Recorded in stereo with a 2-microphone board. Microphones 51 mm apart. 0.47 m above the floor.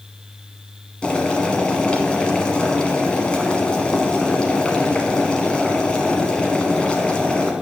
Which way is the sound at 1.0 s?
20° left (ahead or behind).